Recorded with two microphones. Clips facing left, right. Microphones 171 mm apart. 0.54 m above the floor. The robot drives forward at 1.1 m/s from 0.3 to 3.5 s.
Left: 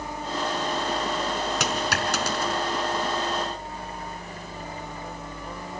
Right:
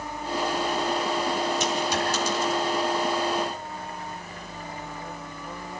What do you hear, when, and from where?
1.6 s a dropped coin: 80° left, 2.5 m; by 2.6 s 60° left (ahead or behind), 3 m